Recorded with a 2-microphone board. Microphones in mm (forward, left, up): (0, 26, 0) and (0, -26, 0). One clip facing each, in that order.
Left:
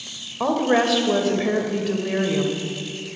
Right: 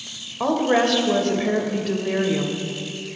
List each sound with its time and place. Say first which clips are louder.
0.4 s a woman speaking: even; 5° left (ahead or behind), 0.9 m